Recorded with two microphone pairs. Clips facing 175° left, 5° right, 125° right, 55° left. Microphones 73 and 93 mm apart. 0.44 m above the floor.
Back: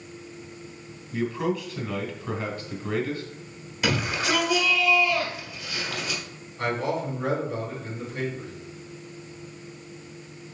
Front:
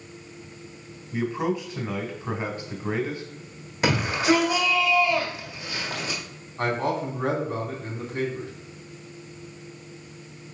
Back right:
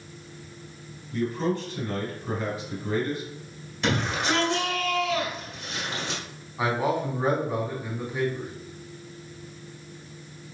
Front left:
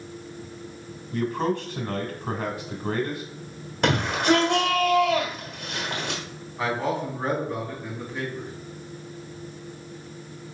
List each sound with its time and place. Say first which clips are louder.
1.1 s a man speaking: front 1 dB, front left 1 dB; 50° left, 1.8 m
3.8 s a shout: front 4 dB, front left 4 dB; 30° left, 1.8 m
6.6 s a man speaking: front 1 dB, back right 1 dB; 45° right, 3 m